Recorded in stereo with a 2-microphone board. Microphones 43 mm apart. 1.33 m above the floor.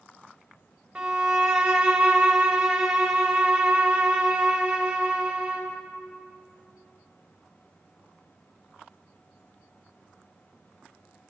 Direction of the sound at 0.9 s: 20° right (ahead or behind).